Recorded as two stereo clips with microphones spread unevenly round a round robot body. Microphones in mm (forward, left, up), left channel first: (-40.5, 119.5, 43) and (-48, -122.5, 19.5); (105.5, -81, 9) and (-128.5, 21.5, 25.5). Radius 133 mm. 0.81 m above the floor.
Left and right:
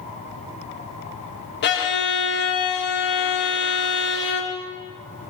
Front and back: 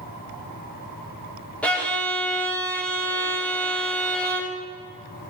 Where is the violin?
55° left, 1.2 m.